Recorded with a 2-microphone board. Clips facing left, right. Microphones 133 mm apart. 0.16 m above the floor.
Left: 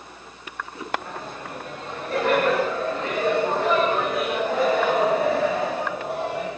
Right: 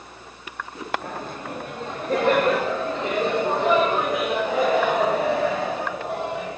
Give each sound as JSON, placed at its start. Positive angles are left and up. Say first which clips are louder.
{"t": 1.0, "sound": "laughter", "louder": "right 2 dB", "side_deg": -55, "distance_m": 3.0}